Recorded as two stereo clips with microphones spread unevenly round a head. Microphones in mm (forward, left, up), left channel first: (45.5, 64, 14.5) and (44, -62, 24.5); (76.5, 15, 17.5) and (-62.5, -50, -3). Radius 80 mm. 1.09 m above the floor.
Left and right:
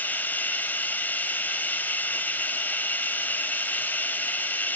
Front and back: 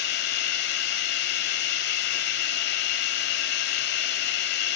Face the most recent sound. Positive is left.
turn(degrees=10)